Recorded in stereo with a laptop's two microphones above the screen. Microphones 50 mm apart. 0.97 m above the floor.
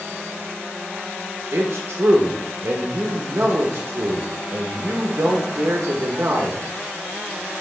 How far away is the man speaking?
About 0.9 m.